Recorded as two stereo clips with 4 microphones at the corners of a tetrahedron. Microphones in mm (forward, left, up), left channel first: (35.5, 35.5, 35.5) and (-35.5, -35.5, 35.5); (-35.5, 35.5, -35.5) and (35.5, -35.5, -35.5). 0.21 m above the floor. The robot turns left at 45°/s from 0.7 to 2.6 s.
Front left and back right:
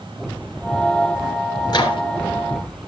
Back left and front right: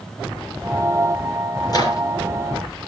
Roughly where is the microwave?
Left.